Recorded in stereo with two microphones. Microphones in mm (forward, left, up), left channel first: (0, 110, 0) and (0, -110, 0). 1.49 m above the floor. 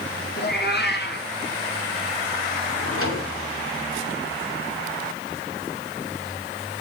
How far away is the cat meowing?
About 2.5 m.